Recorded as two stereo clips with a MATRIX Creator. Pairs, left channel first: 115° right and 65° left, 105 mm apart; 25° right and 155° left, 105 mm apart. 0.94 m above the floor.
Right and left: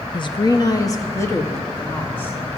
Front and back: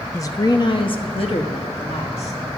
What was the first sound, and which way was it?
A woman speaking, 80° right.